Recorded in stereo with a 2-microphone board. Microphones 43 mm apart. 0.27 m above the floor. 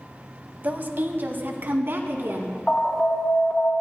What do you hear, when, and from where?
0.6 s a woman speaking: 40° right (ahead or behind), 1.2 m; by 2.6 s 60° right (ahead or behind), 2.5 m
2.7 s an alarm: 30° left (ahead or behind), 3 m